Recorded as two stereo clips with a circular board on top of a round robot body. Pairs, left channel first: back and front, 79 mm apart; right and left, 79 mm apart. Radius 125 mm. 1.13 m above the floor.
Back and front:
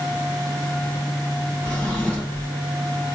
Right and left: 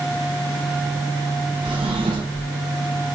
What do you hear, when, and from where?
1.6 s a drawer: 105° left, 0.8 m